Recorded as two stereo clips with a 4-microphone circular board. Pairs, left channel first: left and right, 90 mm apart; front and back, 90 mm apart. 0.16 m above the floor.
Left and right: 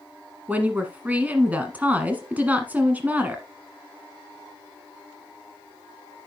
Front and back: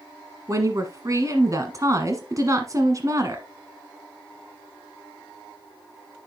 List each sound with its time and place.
0.5 s a woman speaking: 155° right, 1.3 m